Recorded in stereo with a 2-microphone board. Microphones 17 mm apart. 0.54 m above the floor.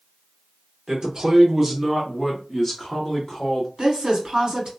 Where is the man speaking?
35° right (ahead or behind), 1.1 m; by 3.7 s 40° left (ahead or behind), 1.2 m.